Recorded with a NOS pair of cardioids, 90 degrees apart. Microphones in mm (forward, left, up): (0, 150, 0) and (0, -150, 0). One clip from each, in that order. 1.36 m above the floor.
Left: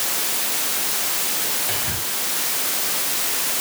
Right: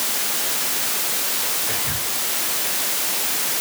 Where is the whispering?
30° left, 9 m.